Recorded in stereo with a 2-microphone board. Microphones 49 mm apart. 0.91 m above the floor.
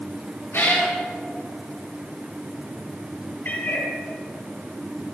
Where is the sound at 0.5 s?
60° left (ahead or behind), 3 m.